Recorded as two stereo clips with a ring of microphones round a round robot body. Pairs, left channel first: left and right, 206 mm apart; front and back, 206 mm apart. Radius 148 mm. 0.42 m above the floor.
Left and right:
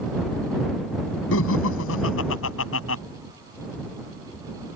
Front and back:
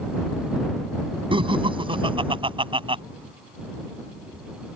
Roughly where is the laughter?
Behind left.